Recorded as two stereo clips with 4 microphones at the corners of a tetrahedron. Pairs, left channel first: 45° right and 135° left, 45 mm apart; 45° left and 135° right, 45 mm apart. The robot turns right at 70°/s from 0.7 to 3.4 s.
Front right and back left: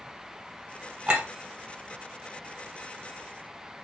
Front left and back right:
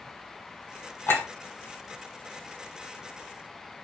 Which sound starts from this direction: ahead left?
A clink, at 1.1 s.